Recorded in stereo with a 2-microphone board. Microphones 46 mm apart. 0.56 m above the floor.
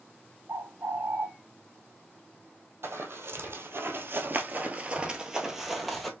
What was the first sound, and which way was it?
A bird, 70° right (ahead or behind).